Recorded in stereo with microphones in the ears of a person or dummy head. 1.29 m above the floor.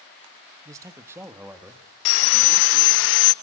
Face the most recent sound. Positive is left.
turn(degrees=65)  # may be behind; listen again after turning